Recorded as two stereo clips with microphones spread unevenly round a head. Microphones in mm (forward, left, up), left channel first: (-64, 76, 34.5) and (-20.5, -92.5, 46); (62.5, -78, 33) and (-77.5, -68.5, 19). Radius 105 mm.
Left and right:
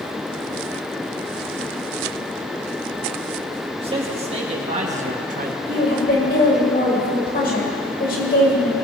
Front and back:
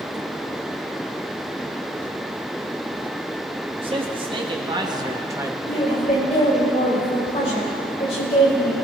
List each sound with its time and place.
3.8 s a man speaking: 135° right, 2.5 m; by 5.5 s 110° right, 1.2 m
5.7 s a woman speaking: 55° left, 4.5 m